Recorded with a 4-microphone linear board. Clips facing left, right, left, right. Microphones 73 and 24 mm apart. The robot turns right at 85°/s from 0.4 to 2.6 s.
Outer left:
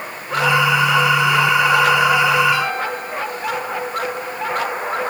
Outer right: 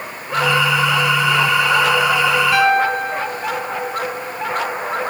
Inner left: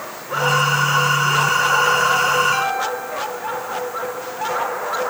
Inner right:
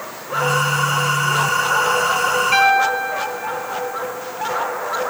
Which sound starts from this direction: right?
A piano, at 2.5 s.